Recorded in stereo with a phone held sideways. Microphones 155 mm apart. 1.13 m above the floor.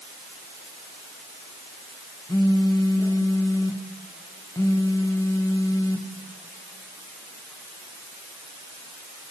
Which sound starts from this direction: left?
A phone buzzing, at 2.3 s.